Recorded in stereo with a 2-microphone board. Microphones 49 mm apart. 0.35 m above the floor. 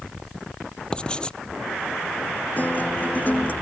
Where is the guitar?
35° left (ahead or behind).